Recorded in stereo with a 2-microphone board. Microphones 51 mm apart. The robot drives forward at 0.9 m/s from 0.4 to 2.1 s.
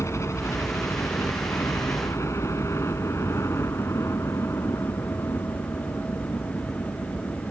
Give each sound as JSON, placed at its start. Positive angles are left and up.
{"t": 0.0, "sound": "a helicopter", "side_deg": 65}